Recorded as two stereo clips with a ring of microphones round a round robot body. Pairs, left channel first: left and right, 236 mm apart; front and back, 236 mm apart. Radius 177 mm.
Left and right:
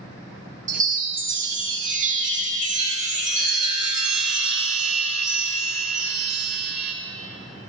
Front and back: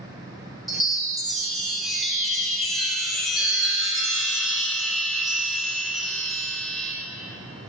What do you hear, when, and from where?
0.7 s a chime: 90° right, 1.1 m